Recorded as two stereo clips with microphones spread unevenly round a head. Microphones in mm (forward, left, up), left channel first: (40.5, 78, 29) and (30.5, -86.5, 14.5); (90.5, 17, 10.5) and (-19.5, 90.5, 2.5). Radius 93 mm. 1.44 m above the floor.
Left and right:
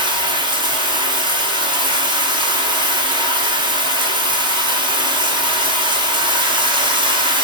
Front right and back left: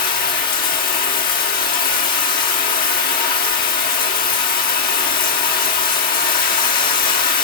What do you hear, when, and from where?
0.0 s running water: 30° right, 2 m